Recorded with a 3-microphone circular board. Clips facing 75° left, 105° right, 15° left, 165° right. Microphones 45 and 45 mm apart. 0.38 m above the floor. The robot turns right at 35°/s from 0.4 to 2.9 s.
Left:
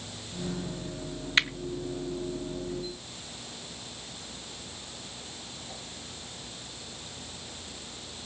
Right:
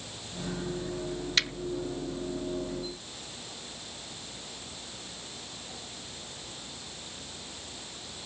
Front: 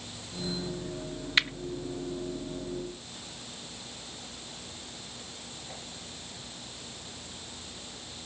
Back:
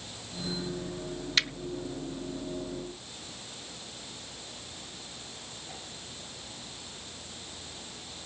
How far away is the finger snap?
About 0.6 m.